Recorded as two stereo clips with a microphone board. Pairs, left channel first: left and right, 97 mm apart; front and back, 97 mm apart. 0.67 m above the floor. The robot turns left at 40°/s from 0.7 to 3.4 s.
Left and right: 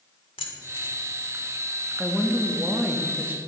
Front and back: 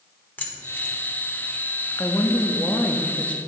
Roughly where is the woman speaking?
Ahead.